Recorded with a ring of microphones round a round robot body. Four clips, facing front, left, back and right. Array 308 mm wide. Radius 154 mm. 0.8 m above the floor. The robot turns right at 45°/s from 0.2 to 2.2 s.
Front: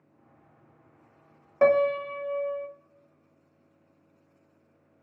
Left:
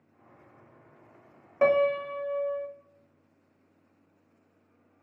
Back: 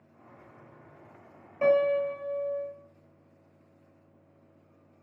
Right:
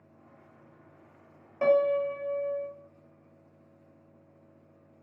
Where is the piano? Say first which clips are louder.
Even, front 2 dB; 25° left, 0.6 m; by 2.7 s 55° left, 0.6 m.